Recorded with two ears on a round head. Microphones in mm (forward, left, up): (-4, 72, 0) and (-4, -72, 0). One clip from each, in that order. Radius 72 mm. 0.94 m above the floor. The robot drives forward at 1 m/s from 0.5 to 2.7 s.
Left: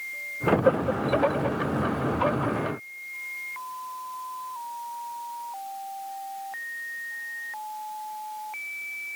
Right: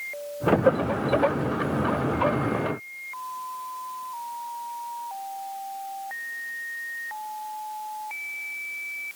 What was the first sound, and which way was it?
Only background noise.